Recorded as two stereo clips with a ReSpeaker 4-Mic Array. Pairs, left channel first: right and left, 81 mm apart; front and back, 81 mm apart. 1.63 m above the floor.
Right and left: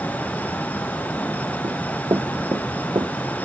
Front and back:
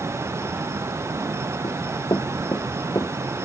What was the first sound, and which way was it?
Running footsteps, 40° left.